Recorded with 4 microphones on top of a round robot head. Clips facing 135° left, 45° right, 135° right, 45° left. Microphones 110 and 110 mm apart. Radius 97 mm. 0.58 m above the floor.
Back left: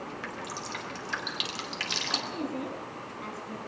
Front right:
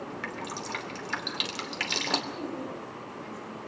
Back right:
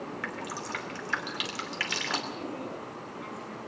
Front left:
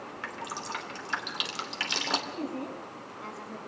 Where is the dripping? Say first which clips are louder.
Front right 2 dB, back right 1 dB; 20° right, 2.5 m.